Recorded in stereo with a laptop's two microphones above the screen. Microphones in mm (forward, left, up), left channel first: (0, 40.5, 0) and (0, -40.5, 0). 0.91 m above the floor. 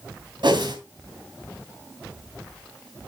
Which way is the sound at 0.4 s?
70° right (ahead or behind).